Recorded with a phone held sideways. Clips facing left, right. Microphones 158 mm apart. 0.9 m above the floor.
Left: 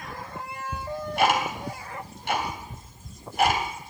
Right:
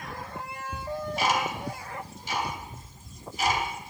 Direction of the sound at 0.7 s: 60° left (ahead or behind).